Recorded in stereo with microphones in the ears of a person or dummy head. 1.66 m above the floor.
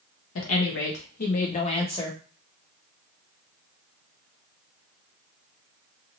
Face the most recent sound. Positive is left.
turn(degrees=20)  # may be behind; listen again after turning